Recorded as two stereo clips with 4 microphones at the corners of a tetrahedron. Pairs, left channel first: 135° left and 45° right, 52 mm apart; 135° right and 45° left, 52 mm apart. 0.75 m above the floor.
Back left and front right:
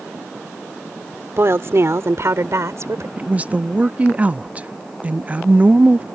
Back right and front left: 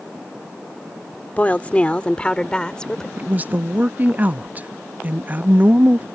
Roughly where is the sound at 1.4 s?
Right.